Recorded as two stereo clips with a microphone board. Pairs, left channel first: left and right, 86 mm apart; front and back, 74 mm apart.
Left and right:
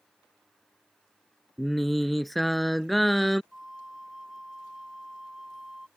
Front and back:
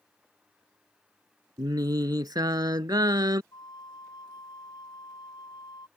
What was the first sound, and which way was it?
Singing, straight behind.